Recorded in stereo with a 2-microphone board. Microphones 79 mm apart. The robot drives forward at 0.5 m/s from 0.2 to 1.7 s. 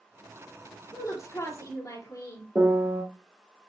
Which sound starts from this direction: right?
A piano, at 2.5 s.